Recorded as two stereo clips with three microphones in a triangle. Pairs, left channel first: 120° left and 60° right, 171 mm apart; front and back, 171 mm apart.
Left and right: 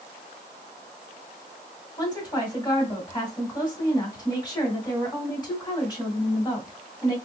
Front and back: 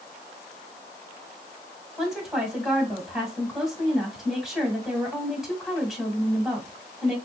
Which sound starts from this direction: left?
A woman speaking, at 2.0 s.